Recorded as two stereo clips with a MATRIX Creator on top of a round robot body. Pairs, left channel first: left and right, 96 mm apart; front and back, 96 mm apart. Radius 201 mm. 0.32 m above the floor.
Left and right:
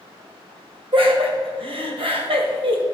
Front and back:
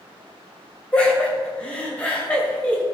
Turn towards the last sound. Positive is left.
turn(degrees=-75)